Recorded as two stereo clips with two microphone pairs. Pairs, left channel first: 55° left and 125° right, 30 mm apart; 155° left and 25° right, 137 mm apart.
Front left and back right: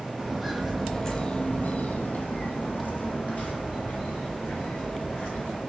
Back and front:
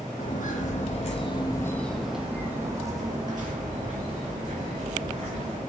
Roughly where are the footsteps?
Behind left.